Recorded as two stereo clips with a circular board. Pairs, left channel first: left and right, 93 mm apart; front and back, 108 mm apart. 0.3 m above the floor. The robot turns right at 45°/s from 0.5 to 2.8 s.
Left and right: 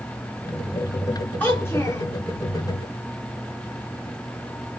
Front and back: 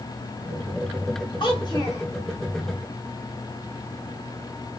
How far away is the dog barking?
I don't hear a dog barking.